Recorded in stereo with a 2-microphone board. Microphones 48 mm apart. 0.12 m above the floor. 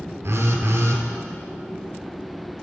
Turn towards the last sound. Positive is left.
turn(degrees=-60)  # may be behind; listen again after turning